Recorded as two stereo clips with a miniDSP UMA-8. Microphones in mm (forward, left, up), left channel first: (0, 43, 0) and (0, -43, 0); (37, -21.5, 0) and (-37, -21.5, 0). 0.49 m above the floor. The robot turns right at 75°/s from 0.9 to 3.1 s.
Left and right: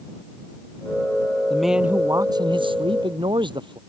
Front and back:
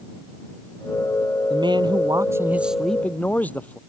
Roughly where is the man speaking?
Behind.